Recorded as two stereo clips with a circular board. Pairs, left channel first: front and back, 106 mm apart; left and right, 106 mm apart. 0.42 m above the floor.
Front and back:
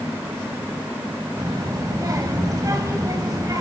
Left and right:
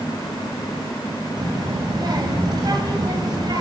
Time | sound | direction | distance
1.4 | a child speaking | 130° right | 2 m